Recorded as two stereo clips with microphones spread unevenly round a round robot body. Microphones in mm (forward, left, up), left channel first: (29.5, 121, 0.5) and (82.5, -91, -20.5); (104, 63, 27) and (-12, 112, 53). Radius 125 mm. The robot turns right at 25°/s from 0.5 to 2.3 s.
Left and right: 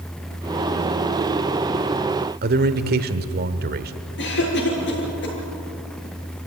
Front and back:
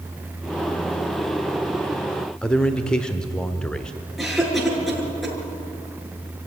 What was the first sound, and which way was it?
A man speaking, 95° right.